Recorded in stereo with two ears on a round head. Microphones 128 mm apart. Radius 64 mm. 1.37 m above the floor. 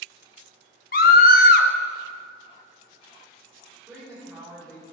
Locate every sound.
0.9 s a scream: 70° left (ahead or behind), 1.3 m
3.9 s a woman speaking: 5° left (ahead or behind), 4.5 m